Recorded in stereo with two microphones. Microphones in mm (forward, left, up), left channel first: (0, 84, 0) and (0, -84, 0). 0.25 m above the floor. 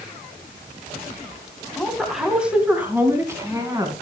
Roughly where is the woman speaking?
Centre.